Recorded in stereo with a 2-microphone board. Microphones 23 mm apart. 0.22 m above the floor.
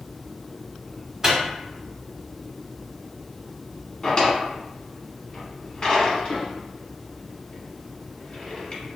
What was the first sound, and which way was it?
A microwave, 25° right (ahead or behind).